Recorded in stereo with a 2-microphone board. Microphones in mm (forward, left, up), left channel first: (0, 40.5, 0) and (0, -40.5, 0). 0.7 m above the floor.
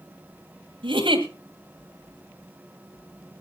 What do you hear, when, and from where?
0.8 s a giggle: 80° right, 2 m